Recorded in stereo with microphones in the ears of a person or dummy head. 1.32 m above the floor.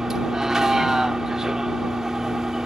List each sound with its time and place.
0.0 s a vehicle: 5° right (ahead or behind)